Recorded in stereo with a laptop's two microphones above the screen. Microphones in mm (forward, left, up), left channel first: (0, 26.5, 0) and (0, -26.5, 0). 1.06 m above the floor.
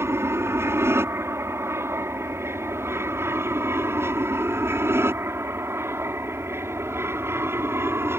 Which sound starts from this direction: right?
An aircraft, at 0.0 s.